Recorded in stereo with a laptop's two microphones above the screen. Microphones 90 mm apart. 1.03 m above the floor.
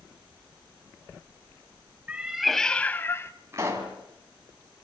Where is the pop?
35° right (ahead or behind), 2.5 m.